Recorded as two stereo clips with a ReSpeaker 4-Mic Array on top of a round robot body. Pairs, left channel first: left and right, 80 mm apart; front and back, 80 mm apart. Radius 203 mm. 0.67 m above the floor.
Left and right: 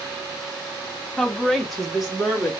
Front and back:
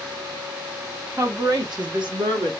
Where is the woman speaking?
170° left, 1.2 m; by 2.5 s straight behind, 3 m.